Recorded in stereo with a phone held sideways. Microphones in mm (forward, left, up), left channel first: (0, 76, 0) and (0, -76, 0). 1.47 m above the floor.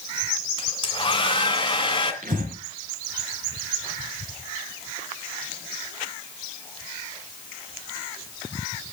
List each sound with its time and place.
0.6 s a hair dryer: 30° left (ahead or behind), 2.5 m
2.2 s breathing: 65° right (ahead or behind), 3 m